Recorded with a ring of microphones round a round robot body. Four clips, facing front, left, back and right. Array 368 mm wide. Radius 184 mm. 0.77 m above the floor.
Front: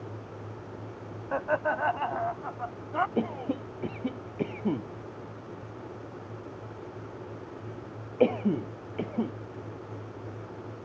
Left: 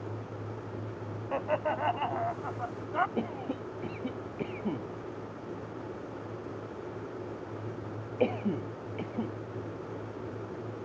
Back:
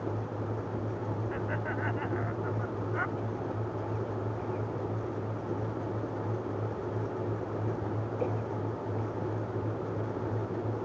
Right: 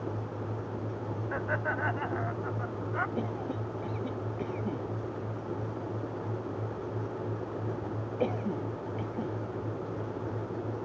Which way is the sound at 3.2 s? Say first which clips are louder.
Even, front 5 dB; 5° left.